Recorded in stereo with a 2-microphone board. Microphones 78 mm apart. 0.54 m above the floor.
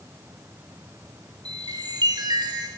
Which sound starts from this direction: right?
A chime, at 1.4 s.